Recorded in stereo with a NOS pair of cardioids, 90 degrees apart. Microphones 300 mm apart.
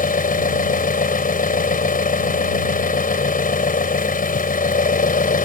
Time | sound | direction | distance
0.0 | an engine running | 30° left | ?